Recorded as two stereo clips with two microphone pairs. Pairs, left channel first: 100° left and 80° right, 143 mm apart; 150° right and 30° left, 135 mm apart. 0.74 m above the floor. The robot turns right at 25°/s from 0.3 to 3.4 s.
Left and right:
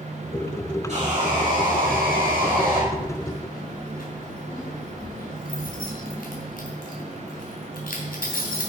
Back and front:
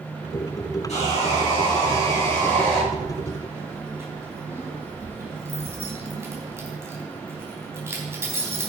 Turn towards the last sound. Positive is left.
turn(degrees=100)